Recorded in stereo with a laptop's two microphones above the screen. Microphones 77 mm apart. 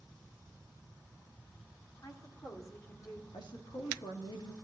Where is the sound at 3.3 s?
75° left (ahead or behind), 2.5 m.